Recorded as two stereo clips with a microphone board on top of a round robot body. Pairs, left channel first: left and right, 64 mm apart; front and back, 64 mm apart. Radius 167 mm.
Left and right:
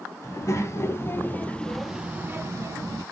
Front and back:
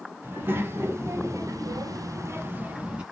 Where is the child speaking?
125° left, 1.1 m; by 3.0 s 110° right, 0.8 m.